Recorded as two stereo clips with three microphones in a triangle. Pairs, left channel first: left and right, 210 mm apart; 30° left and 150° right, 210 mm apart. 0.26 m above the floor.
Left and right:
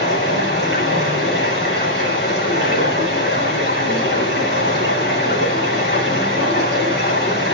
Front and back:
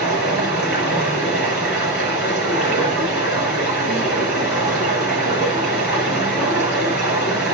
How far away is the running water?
About 4.5 m.